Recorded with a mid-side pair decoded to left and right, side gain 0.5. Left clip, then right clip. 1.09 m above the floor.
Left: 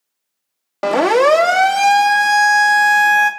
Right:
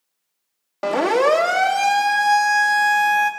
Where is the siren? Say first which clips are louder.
Left 5 dB; 35° left, 2.5 m.